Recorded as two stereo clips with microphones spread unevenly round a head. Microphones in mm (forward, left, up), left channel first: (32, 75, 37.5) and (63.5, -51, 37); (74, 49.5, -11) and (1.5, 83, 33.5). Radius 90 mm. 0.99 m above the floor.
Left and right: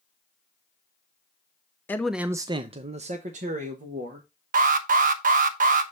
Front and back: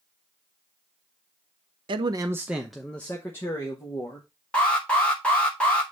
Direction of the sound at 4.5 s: 95° right.